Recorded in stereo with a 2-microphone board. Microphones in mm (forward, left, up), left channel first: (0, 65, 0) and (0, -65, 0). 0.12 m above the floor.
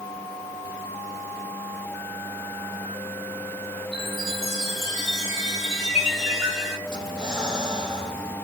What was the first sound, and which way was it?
A chime, centre (ahead or behind).